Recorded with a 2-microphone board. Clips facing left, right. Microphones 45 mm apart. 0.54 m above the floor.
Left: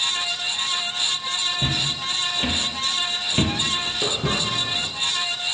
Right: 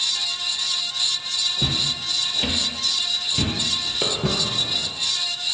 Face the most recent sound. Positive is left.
turn(degrees=-25)  # may be behind; listen again after turning